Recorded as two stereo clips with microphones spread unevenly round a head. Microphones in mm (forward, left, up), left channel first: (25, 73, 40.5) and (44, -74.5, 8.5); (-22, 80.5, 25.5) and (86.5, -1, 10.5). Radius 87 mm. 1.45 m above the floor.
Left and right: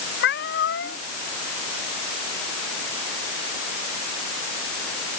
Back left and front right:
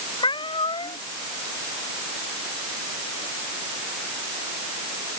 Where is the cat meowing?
90° left.